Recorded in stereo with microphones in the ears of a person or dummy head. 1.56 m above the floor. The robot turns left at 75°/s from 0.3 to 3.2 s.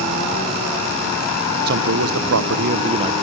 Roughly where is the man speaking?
Ahead right.